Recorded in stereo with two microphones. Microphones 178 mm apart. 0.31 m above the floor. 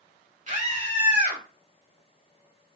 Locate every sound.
0.5 s a scream: 45° right (ahead or behind), 2 m